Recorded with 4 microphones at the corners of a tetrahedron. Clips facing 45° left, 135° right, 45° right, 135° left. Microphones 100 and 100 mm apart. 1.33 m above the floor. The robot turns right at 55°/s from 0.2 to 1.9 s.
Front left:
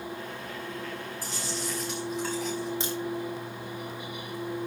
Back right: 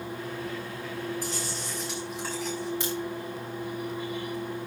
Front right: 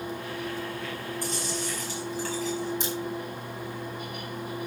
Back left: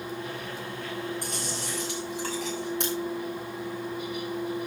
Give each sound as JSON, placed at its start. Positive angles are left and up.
{"t": 1.2, "sound": "chewing", "azimuth_deg": 100, "distance_m": 8.5}
{"t": 2.8, "sound": "a crack", "azimuth_deg": 110, "distance_m": 5.0}